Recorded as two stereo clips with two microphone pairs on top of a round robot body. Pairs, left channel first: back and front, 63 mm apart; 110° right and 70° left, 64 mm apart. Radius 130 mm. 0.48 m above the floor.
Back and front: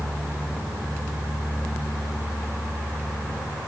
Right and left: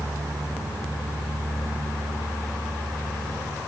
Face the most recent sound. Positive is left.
No sound to turn to.